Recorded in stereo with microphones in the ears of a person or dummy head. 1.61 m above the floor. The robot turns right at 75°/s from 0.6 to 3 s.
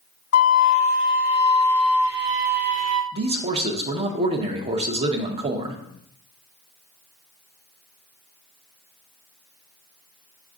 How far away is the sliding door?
I don't hear a sliding door.